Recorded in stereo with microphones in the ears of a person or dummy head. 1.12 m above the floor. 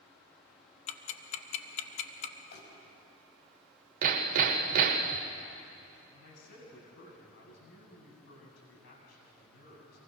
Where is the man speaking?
70° left (ahead or behind), 7 m.